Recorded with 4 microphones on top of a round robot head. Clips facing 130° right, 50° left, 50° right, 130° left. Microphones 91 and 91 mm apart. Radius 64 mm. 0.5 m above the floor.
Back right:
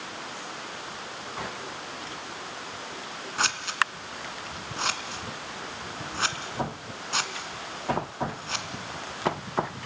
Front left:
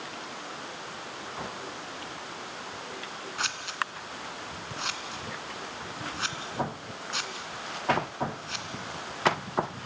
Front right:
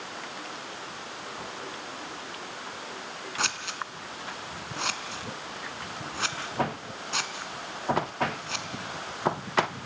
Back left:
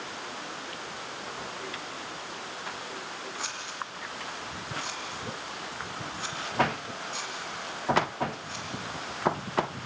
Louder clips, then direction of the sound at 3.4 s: Back right 6 dB, front right 8 dB; 80° right.